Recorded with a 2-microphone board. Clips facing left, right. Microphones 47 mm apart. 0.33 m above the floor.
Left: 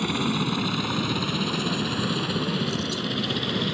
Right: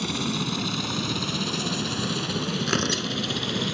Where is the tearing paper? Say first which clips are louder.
Right 2 dB; 75° right (ahead or behind).